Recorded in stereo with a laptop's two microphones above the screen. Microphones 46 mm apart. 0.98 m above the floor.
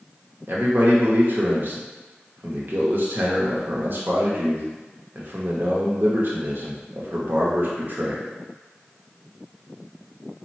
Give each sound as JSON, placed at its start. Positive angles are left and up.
{"t": 0.5, "sound": "a man speaking", "side_deg": -50, "distance_m": 0.8}